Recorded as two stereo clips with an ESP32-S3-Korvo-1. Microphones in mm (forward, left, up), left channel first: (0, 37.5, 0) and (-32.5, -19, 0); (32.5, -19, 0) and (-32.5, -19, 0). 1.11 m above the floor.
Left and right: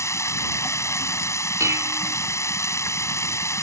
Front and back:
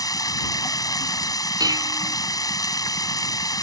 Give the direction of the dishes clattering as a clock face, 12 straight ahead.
5 o'clock.